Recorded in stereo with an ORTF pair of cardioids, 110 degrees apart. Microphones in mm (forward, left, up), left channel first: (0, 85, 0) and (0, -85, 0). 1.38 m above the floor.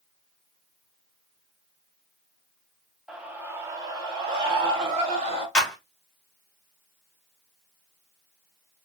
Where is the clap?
5° left, 1.7 m.